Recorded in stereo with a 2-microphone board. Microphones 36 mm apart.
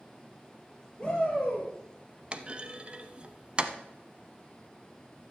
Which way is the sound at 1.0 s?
5° left (ahead or behind).